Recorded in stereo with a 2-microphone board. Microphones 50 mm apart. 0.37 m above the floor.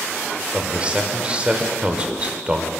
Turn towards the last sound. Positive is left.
turn(degrees=-20)  # may be behind; listen again after turning